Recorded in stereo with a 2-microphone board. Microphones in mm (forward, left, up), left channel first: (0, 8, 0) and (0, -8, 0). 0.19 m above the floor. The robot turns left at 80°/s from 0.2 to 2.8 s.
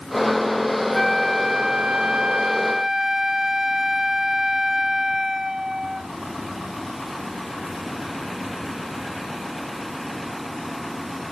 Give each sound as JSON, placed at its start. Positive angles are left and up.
{"t": 0.9, "sound": "a flute", "azimuth_deg": 0}